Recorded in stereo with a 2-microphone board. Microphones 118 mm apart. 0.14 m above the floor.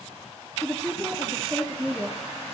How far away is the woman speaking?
About 2 m.